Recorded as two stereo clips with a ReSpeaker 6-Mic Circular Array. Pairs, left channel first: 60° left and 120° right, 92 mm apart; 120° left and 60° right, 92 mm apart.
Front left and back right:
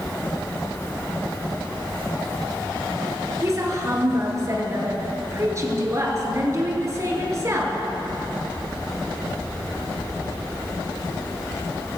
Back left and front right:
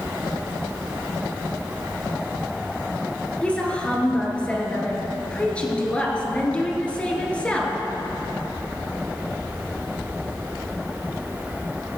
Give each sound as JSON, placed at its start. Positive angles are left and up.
{"t": 3.4, "sound": "a woman speaking", "azimuth_deg": -165, "distance_m": 2.5}